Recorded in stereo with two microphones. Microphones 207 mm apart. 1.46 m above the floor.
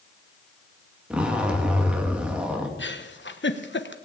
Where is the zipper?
5° right (ahead or behind), 2 m.